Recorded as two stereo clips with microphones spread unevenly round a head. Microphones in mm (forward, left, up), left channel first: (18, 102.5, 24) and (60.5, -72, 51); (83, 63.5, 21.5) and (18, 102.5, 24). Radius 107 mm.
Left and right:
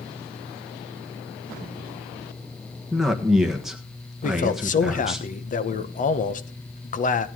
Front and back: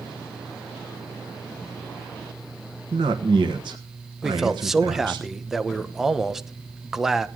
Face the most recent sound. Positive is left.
turn(degrees=65)